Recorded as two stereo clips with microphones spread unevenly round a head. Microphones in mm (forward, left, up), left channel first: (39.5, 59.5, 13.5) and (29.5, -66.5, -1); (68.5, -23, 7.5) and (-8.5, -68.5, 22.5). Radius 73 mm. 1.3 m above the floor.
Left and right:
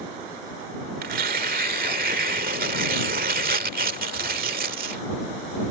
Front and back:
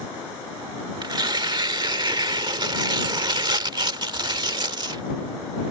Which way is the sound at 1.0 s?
125° right.